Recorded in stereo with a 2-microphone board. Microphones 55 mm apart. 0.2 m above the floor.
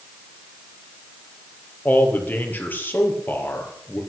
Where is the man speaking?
35° left (ahead or behind), 4.5 m.